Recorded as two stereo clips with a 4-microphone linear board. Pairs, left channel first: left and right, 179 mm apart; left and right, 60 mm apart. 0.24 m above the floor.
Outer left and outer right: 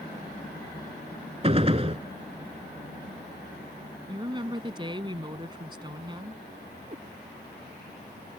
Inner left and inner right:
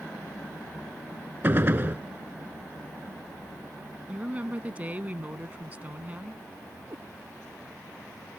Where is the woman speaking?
25° right (ahead or behind).